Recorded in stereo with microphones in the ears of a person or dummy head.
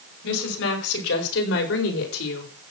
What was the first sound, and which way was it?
A woman speaking, 85° left.